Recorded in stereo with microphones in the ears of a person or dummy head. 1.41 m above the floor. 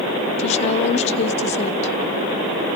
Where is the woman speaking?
35° left (ahead or behind), 0.6 m.